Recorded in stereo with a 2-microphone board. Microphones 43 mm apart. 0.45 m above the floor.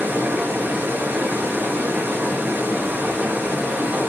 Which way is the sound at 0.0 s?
55° right (ahead or behind).